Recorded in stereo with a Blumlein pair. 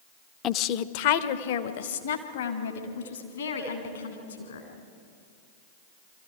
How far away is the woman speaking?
About 0.7 m.